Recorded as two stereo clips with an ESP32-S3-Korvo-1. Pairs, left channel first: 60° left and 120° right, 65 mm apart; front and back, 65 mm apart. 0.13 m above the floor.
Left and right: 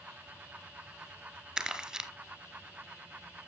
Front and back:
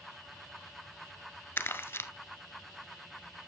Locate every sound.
1.6 s crumpling: 45° right, 1.3 m